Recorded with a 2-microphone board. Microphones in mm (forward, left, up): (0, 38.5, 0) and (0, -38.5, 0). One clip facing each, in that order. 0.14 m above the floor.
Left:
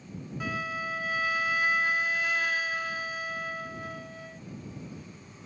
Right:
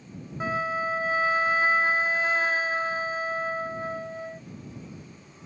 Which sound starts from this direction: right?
A flute, at 0.4 s.